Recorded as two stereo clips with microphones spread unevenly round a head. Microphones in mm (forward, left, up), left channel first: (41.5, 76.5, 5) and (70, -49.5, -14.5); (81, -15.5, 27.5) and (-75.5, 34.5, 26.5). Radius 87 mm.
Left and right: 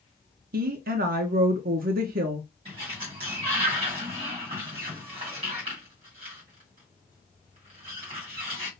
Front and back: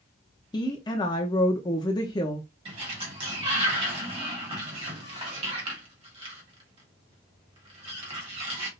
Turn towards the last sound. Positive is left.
turn(degrees=-140)